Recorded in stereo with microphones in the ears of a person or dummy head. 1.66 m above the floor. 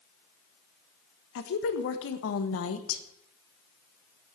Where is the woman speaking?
70° left (ahead or behind), 1.6 m.